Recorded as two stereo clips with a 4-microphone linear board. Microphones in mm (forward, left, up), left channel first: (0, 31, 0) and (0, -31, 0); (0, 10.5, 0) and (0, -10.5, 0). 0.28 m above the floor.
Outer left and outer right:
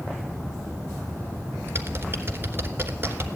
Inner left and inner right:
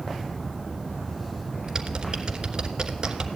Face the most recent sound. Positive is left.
turn(degrees=-40)  # may be behind; listen again after turning